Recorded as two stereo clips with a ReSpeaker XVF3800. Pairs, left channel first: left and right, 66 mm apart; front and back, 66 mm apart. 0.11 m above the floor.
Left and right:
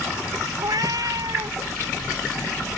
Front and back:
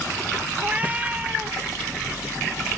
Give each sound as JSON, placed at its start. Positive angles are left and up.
{"t": 0.6, "sound": "a cat meowing", "azimuth_deg": -110}